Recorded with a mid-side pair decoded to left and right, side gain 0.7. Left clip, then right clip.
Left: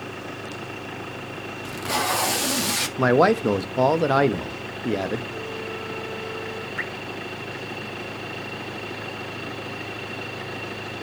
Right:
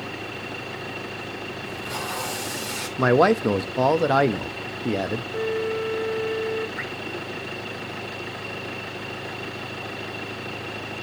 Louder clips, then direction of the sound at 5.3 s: Right 6 dB; 25° right.